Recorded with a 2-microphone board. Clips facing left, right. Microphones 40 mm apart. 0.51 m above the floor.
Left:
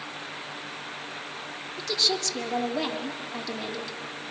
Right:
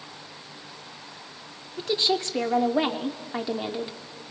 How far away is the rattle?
I don't hear a rattle.